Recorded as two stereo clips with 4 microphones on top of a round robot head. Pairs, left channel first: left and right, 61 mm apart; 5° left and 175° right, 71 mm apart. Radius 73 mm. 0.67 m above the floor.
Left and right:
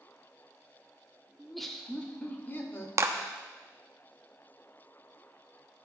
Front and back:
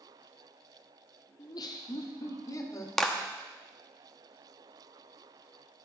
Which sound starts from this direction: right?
A clap, at 3.0 s.